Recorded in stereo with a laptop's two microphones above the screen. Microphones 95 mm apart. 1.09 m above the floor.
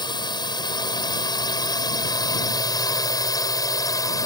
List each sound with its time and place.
0.0 s a drone: 50° left (ahead or behind); by 4.3 s 40° left (ahead or behind)